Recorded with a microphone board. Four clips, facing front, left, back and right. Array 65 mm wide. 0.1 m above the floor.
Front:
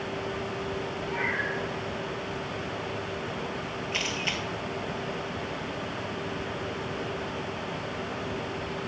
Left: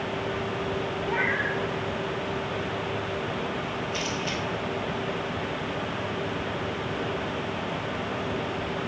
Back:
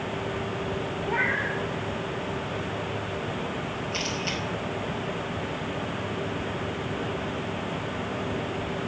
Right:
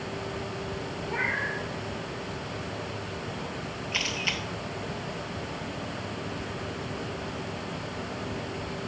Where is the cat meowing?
135° left, 2.5 m.